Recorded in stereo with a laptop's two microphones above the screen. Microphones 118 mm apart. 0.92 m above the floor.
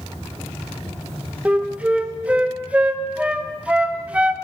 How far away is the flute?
About 0.5 m.